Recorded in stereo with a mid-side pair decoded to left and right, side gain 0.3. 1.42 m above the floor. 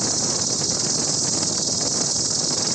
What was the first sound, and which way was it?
An insect, 35° right.